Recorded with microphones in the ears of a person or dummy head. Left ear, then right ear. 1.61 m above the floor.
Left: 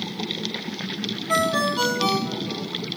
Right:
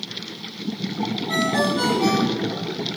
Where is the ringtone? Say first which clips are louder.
Left 1 dB; 10° left (ahead or behind), 3 m.